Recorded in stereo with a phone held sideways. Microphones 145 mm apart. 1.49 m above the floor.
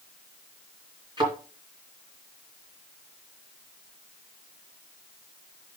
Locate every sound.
1.2 s a thud: 30° right (ahead or behind), 3 m